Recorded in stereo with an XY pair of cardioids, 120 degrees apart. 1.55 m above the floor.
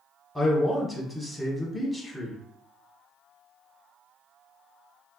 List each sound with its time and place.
0.3 s a man speaking: straight ahead, 1.2 m